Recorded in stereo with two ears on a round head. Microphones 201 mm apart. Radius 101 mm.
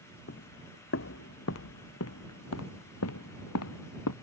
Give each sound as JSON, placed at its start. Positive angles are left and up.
{"t": 0.3, "sound": "footsteps", "side_deg": 50}